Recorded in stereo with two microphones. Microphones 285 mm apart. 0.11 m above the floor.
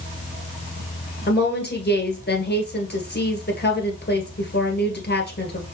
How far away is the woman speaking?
About 1.7 m.